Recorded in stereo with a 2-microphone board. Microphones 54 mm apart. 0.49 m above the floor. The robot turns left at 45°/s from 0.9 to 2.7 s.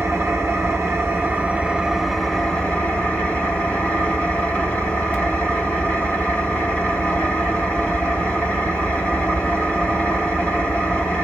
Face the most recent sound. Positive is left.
turn(degrees=155)